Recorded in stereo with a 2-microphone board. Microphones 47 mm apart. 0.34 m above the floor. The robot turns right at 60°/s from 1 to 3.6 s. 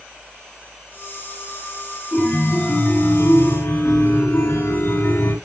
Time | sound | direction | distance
2.1 | a chime | 25° left | 7.5 m